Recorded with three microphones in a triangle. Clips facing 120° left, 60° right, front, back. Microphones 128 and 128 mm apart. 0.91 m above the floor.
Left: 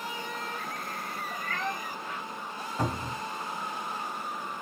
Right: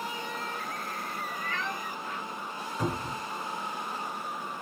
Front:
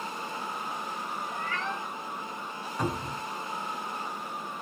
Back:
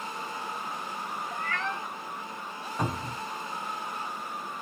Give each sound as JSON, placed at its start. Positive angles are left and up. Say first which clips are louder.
{"t": 1.3, "sound": "a cat meowing", "louder": "left 3 dB, back 2 dB", "azimuth_deg": 160, "distance_m": 0.7}
{"t": 2.8, "sound": "a cupboard door", "louder": "even, front 1 dB", "azimuth_deg": 110, "distance_m": 1.7}